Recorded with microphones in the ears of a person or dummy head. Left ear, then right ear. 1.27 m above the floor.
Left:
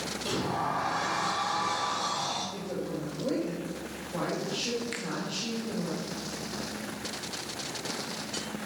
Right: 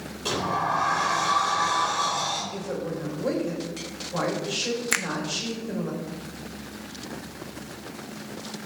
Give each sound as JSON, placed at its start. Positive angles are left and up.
{"t": 0.2, "sound": "a sliding door", "side_deg": -40, "distance_m": 3.5}
{"t": 2.5, "sound": "a woman speaking", "side_deg": -70, "distance_m": 7.0}
{"t": 4.9, "sound": "a finger snap", "side_deg": -45, "distance_m": 0.6}